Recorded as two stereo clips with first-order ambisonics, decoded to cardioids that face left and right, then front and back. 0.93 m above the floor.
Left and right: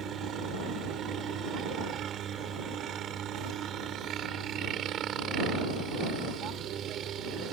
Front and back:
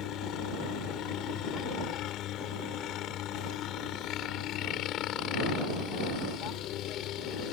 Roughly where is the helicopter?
Ahead right.